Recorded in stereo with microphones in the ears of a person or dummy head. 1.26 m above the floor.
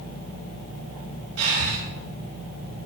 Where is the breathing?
80° right, 5 m.